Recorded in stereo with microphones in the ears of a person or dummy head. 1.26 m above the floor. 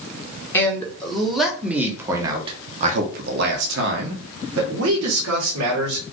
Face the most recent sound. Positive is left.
turn(degrees=-70)  # may be behind; listen again after turning